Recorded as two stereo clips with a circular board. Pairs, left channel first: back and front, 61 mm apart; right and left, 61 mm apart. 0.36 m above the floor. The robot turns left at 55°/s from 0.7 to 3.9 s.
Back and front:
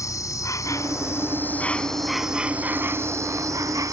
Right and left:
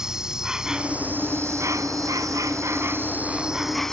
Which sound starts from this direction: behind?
An insect, at 0.0 s.